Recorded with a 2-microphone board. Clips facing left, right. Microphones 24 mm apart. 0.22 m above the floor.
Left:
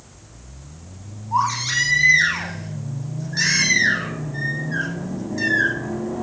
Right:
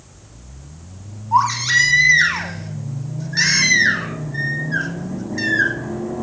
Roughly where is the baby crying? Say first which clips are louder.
Right 5 dB; centre.